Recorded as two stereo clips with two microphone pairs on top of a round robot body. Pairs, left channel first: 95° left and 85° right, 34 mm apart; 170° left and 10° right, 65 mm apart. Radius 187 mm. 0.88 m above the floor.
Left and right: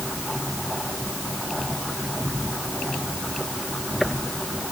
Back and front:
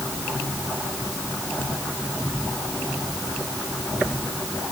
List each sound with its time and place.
Only background noise.